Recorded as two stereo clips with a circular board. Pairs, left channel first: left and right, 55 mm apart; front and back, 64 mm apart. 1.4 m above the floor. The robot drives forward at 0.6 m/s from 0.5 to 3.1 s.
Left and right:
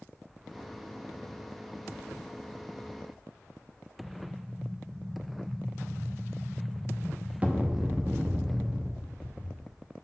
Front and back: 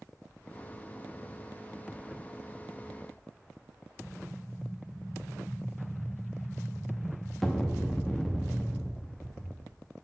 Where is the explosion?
85° right, 0.8 m.